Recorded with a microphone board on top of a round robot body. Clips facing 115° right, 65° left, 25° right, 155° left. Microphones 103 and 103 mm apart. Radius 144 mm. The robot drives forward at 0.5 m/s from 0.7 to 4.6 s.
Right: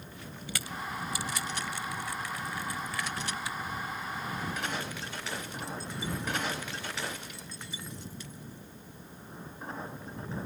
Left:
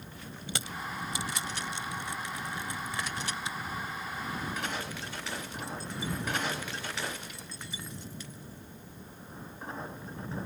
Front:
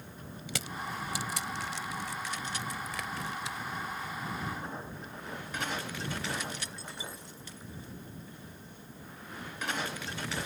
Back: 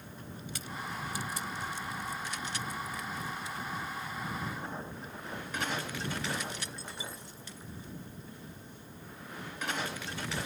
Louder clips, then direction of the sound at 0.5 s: Even, front 3 dB; straight ahead.